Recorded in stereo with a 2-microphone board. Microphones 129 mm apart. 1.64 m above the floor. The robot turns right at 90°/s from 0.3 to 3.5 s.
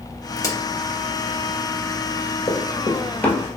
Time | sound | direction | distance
0.4 | a crack | 20° left (ahead or behind) | 1.1 m
2.5 | running footsteps | 35° left (ahead or behind) | 1.9 m